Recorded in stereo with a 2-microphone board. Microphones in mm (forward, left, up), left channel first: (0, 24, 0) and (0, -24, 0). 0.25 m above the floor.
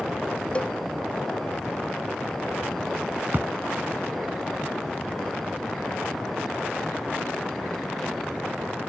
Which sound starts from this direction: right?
A thud, at 3.3 s.